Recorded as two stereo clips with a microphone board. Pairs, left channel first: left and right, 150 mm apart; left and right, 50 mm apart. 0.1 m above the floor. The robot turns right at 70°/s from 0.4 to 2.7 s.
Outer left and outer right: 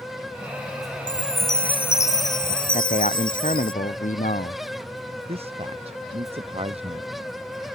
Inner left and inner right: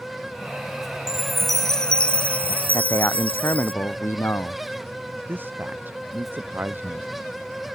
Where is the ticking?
No ticking in this recording.